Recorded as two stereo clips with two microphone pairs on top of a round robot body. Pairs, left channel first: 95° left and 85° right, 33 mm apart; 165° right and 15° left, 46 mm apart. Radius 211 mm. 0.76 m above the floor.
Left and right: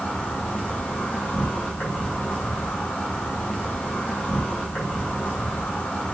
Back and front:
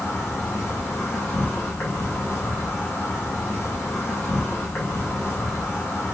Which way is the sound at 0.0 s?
155° left.